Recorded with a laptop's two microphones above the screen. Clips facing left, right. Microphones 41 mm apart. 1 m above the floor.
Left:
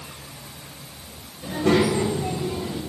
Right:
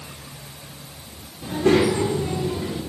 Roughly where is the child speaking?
Right.